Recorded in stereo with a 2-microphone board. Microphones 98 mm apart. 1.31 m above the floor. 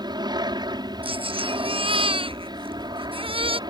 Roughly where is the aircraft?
Right.